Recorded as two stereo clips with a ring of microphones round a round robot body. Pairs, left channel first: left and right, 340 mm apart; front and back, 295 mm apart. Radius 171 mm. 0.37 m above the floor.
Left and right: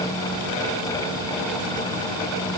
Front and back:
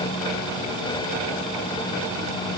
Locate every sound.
Only background noise.